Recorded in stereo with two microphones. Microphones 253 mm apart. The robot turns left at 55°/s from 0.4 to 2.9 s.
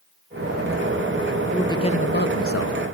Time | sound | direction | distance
1.5 | a man speaking | 175° left | 1.7 m